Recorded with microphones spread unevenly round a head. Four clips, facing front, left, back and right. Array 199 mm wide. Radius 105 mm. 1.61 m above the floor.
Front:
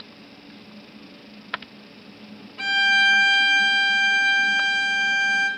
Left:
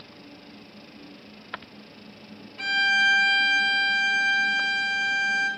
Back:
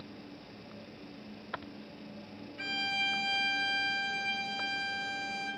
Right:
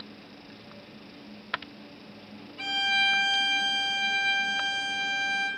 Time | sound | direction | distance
2.6 | a violin | 20° left | 1.2 m